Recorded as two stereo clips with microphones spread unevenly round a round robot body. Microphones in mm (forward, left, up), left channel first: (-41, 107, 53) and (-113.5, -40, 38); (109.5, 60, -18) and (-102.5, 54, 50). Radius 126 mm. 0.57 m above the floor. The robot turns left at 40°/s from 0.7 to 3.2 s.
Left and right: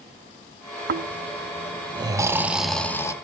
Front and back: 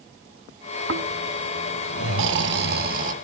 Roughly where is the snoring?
Behind right.